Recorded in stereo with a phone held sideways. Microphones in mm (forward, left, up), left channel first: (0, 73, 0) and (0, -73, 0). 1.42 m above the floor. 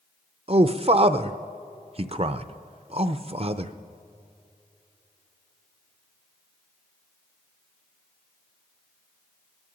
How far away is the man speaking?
About 0.5 m.